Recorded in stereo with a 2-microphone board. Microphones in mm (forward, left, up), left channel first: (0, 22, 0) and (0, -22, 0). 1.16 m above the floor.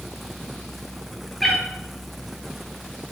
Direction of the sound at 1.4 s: 5° left (ahead or behind).